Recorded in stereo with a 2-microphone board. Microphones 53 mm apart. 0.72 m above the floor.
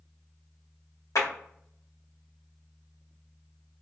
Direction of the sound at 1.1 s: 75° left (ahead or behind).